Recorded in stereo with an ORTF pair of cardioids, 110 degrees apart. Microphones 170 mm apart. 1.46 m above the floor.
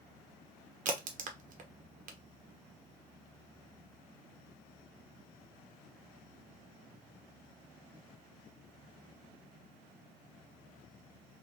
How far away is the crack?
About 1.0 m.